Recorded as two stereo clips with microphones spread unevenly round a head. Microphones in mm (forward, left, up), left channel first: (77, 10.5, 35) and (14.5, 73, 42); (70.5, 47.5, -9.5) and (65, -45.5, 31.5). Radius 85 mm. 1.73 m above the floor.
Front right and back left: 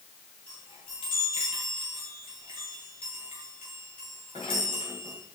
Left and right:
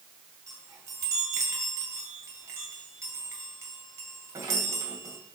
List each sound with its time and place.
0.5 s a chime: 90° right, 2 m